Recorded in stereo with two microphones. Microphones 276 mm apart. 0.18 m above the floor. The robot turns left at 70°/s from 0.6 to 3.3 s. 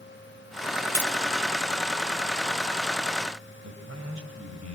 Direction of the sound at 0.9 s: 10° left (ahead or behind).